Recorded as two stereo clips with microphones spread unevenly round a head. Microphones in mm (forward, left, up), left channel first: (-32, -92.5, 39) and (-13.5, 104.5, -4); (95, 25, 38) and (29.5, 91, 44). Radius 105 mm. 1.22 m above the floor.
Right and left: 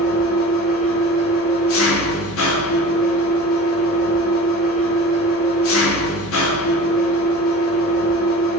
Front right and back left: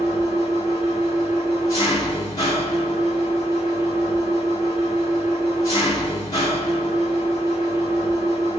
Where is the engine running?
115° right, 2 m.